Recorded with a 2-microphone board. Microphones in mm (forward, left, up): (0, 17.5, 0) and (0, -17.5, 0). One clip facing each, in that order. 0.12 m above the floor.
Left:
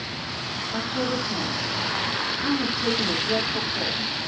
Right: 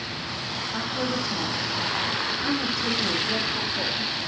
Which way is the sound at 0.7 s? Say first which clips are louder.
Left 2 dB; 35° left (ahead or behind).